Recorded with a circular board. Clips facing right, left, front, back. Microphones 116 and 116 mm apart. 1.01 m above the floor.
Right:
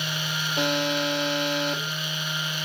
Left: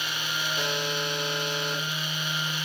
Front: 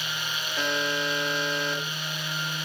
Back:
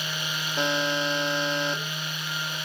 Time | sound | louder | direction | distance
0.6 | a buzzer | right 8 dB, back 3 dB | 115° right | 2 m